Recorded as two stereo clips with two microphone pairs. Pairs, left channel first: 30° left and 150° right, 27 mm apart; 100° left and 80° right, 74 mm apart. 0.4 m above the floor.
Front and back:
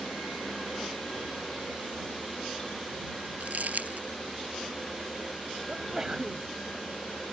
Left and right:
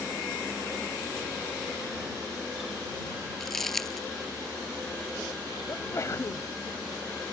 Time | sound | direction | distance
3.4 | crumpling | 170° right | ?
5.7 | a sneeze | 145° left | ?